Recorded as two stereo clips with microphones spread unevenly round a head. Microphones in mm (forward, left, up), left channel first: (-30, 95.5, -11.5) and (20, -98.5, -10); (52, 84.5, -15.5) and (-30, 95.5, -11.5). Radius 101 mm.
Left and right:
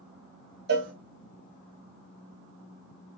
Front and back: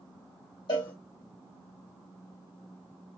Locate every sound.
0.7 s a cowbell: 45° right, 1.1 m